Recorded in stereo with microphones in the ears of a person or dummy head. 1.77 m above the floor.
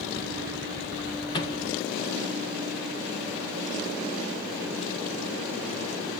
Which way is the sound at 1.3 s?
30° left (ahead or behind).